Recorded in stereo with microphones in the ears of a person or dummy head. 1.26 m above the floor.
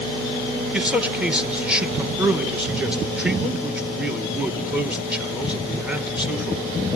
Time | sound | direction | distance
0.7 | a man speaking | centre (ahead or behind) | 1.5 m